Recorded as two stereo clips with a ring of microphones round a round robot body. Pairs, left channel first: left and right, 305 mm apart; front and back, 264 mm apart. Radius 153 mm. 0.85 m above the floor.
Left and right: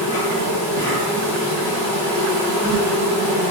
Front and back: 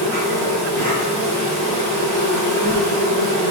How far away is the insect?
About 1.7 m.